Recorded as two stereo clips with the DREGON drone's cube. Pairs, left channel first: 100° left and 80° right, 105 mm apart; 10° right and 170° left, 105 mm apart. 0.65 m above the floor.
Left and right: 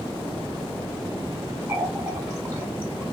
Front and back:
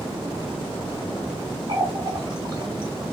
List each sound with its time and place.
1.7 s a running tap: 140° right, 1.3 m